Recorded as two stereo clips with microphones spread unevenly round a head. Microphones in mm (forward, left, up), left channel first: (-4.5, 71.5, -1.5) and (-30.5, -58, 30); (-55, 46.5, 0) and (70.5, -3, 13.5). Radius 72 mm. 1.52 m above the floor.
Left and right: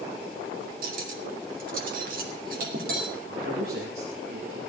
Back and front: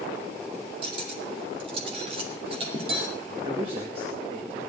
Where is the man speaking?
75° right, 2.0 m.